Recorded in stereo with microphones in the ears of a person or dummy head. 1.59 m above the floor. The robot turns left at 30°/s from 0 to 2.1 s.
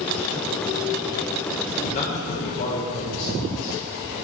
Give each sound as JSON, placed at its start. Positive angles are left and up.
{"t": 1.8, "sound": "a man speaking", "side_deg": 45, "distance_m": 0.6}